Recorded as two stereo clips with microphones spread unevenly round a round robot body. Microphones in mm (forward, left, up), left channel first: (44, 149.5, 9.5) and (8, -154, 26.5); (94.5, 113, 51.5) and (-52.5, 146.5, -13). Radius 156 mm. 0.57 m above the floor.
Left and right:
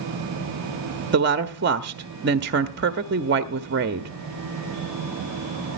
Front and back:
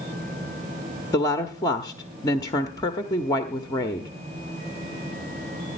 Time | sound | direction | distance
1.1 | a woman speaking | 105° right | 0.6 m